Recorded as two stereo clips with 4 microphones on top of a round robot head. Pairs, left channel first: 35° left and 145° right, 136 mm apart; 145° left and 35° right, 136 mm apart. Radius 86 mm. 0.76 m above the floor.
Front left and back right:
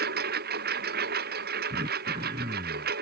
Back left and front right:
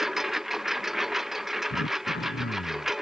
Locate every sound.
0.0 s a lawn mower: 125° right
1.7 s throat clearing: 155° left